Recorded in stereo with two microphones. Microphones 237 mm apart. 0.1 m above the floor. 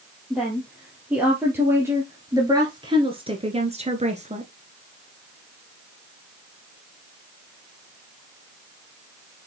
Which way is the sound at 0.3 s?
Centre (ahead or behind).